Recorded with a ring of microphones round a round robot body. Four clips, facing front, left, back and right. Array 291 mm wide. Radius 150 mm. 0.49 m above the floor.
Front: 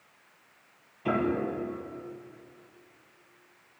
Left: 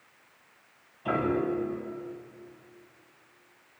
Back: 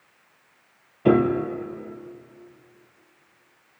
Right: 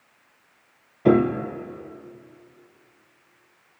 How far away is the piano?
About 2 m.